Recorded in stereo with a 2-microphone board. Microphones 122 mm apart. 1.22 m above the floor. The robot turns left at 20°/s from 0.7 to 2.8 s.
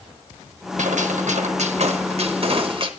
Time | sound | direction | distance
0.8 | a gunshot | 95° right | 1.0 m